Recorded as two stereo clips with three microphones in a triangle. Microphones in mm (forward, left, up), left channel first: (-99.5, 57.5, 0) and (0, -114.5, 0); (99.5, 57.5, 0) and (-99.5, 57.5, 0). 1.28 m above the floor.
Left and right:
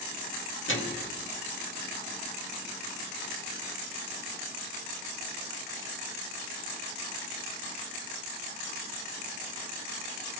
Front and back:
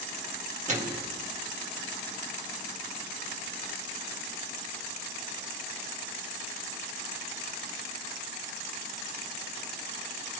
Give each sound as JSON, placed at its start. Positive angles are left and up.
{"t": 0.7, "sound": "a microwave", "azimuth_deg": 125, "distance_m": 1.9}